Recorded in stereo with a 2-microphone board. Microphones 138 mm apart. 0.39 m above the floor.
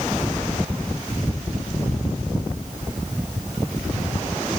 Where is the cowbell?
I don't hear a cowbell.